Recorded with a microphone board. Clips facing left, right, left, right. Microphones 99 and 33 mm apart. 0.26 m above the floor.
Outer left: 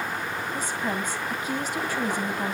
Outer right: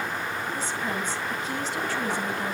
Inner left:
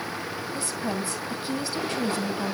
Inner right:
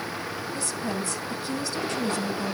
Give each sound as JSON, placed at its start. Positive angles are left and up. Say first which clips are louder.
{"t": 0.5, "sound": "a woman speaking", "louder": "outer left 3 dB, inner left 1 dB", "side_deg": 15, "distance_m": 2.0}